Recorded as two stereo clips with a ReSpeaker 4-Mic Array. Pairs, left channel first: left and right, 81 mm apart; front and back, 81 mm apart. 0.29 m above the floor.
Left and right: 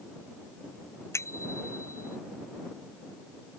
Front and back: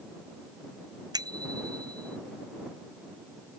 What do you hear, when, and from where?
1.1 s a bicycle bell: 145° left